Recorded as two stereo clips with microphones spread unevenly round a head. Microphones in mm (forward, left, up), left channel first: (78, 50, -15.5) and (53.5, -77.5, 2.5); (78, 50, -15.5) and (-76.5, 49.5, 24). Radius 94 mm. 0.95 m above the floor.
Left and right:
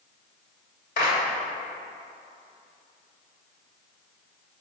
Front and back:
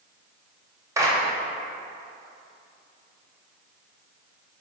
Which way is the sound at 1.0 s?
105° left.